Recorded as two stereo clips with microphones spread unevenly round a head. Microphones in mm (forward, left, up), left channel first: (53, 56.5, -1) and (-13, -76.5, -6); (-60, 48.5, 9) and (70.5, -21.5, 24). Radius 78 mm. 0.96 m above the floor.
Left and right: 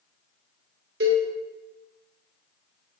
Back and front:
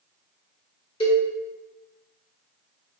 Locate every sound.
1.0 s a cowbell: 150° right, 1.5 m